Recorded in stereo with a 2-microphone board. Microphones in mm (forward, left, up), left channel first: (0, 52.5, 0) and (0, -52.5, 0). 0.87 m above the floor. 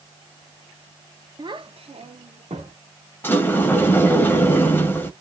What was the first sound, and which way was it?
A child speaking, 45° right (ahead or behind).